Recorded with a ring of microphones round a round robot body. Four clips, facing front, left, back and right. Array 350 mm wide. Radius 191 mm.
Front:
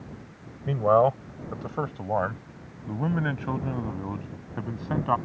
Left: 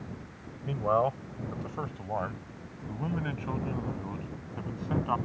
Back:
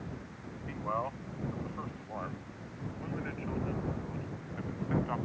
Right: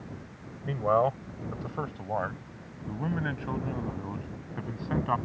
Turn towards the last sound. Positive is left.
turn(degrees=-5)